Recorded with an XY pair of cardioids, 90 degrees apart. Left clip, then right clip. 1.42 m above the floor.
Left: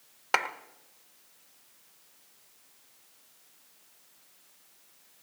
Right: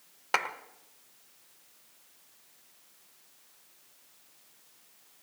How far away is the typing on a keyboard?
No typing on a keyboard in this recording.